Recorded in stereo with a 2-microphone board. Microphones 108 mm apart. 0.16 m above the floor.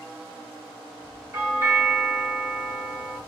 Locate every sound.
1.3 s a doorbell: 25° right (ahead or behind), 1.8 m